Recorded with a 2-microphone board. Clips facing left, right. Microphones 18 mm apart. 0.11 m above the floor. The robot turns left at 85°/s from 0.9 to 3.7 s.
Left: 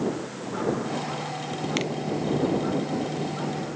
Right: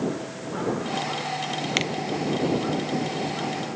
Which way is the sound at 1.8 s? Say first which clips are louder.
Right 3 dB; 25° right (ahead or behind).